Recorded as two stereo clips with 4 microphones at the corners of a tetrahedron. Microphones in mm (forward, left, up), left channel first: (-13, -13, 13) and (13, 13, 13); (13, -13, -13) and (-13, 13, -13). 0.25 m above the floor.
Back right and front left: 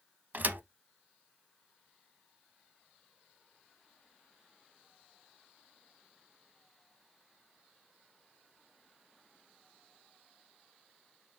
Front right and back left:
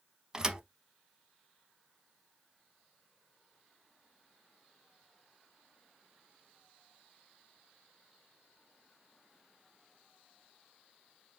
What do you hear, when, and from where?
0.3 s a thud: 65° left, 0.7 m